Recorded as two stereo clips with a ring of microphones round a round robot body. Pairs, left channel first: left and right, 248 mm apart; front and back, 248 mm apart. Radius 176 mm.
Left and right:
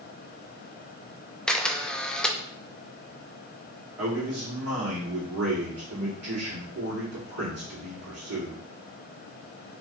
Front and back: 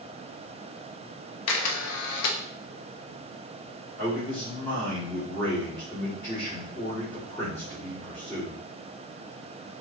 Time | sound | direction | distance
1.5 | a camera shutter | 5° left | 0.7 m
4.0 | a man speaking | 80° right | 2.5 m